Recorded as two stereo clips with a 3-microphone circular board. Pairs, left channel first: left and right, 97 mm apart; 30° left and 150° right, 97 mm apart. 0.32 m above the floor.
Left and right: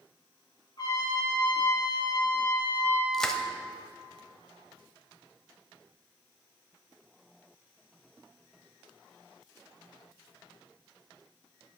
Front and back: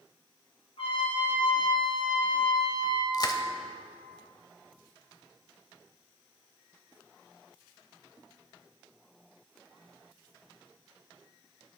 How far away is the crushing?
About 0.9 m.